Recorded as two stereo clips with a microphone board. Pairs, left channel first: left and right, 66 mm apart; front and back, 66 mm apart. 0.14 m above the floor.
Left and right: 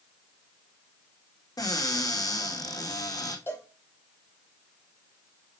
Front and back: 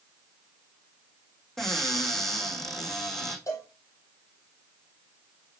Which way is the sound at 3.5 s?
35° left.